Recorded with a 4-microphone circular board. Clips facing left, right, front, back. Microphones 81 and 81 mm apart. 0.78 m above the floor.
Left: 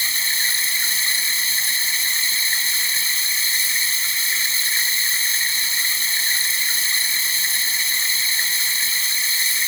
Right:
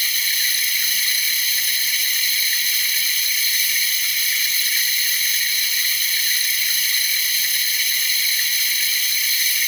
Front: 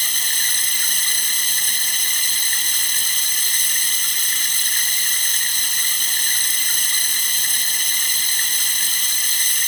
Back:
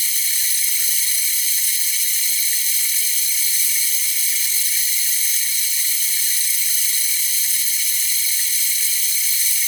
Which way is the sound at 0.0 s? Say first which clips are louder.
Left 1 dB, front 5 dB; 30° left.